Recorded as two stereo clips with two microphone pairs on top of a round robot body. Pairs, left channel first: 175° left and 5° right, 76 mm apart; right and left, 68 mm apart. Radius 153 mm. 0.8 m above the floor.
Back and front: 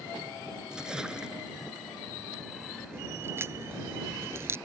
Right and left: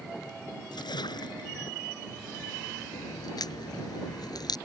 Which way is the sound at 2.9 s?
65° right.